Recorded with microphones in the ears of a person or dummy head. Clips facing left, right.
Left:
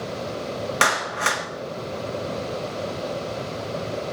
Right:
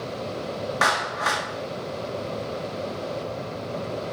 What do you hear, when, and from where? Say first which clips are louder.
0.8 s a clap: even; 40° left (ahead or behind), 1.0 m